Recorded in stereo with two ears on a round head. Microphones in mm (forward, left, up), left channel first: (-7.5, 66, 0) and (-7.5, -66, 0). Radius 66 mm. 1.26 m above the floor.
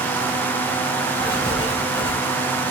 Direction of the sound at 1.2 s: 35° left (ahead or behind).